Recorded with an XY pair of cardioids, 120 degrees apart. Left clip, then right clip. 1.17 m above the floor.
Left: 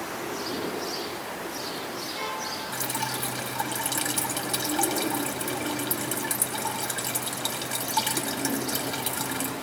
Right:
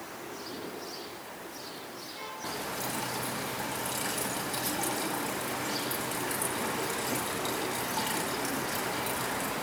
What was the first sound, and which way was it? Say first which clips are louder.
Dripping: left 5 dB; 55° left.